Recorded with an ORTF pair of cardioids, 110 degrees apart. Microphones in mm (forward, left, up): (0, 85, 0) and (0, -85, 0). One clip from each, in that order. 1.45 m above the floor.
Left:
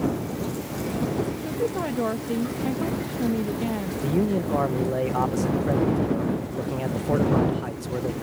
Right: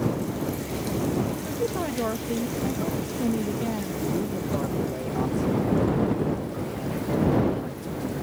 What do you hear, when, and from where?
1.4 s a woman speaking: 15° left
4.0 s a man speaking: 55° left